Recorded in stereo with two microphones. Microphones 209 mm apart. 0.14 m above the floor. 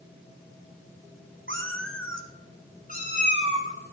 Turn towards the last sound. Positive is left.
turn(degrees=-25)  # may be behind; listen again after turning